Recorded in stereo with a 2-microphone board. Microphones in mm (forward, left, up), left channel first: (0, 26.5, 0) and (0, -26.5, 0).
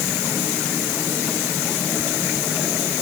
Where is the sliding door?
I don't hear a sliding door.